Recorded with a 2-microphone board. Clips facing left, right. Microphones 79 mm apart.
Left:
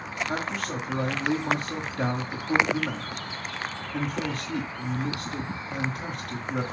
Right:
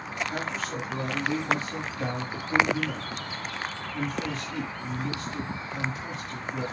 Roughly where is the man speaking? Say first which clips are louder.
Left 2 dB; left.